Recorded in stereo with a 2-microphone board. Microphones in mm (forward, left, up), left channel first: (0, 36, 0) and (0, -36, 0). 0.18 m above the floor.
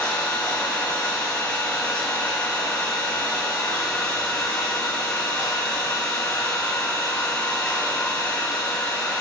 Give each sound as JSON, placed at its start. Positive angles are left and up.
{"t": 0.0, "sound": "an engine running", "side_deg": 20, "distance_m": 9.0}